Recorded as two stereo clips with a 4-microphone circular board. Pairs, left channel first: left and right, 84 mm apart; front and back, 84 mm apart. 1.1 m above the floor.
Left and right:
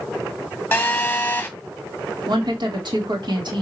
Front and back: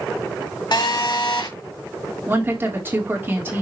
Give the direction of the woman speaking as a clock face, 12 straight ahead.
4 o'clock.